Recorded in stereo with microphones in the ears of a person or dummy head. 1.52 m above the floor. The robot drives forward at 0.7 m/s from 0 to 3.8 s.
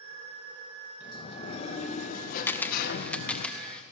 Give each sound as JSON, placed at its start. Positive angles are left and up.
{"t": 1.0, "sound": "a sliding door", "side_deg": 35, "distance_m": 2.5}
{"t": 2.5, "sound": "a camera shutter", "side_deg": 10, "distance_m": 0.7}